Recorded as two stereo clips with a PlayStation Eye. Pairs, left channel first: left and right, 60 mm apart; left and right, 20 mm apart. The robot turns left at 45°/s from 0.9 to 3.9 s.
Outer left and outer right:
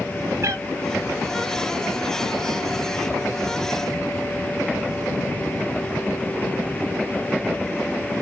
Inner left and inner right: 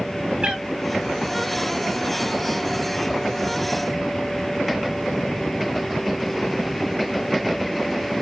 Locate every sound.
0.4 s a cat meowing: 55° right (ahead or behind), 1.0 m